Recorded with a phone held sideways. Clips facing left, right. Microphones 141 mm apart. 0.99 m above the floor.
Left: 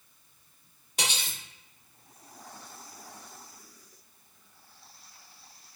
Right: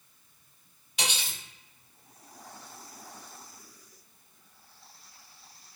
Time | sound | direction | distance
1.0 | cutlery clinking | 45° left (ahead or behind) | 1.2 m